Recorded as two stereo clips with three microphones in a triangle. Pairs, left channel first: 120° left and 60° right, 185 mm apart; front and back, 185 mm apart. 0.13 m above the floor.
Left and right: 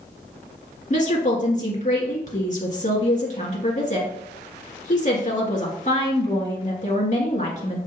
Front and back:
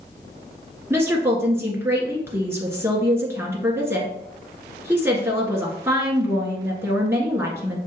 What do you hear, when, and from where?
0.9 s a woman speaking: 110° left, 1.6 m